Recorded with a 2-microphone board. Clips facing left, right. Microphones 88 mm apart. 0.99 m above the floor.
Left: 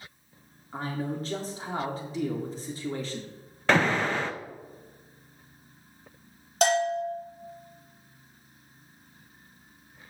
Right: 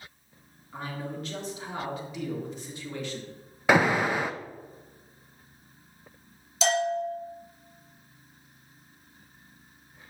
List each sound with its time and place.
0.7 s a man speaking: 35° left (ahead or behind), 3 m
3.7 s an alarm: 10° right (ahead or behind), 0.7 m
6.6 s a bell: 55° left (ahead or behind), 3 m